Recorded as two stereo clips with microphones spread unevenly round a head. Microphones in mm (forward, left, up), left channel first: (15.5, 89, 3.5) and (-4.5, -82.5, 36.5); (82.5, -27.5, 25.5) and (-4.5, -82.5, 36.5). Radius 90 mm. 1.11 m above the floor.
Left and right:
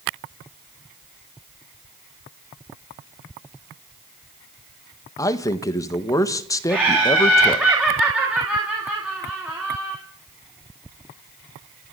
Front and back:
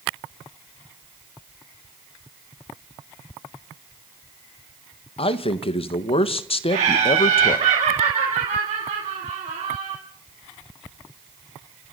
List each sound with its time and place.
5.2 s a man speaking: 20° left, 1.4 m
6.7 s laughter: 175° left, 3 m